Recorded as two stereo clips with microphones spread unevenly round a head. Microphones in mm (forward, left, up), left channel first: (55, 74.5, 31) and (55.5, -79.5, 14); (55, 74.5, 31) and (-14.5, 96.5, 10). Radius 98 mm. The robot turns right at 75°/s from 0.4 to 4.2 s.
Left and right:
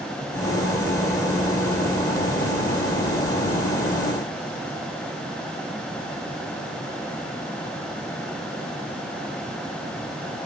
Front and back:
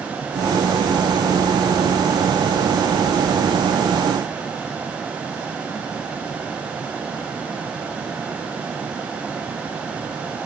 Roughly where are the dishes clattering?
No dishes clattering in this recording.